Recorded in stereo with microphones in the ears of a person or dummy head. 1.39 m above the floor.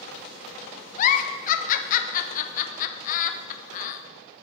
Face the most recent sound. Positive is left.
turn(degrees=45)  # may be behind; listen again after turning